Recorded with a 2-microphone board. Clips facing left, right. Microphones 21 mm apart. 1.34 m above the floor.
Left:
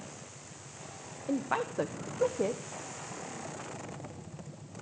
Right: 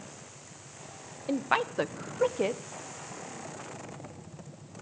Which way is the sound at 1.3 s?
55° right (ahead or behind).